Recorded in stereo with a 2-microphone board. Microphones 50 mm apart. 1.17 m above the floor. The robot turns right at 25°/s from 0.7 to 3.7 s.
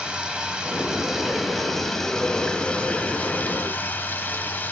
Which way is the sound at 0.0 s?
20° right.